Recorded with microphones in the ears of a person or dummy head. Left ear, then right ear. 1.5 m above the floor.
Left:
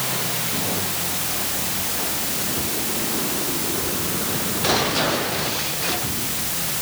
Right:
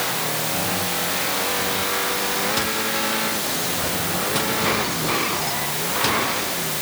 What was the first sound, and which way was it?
Only background noise.